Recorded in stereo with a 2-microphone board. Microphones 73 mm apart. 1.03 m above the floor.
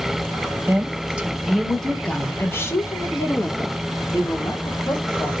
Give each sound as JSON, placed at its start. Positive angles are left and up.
{"t": 0.7, "sound": "a woman speaking", "side_deg": -25, "distance_m": 1.3}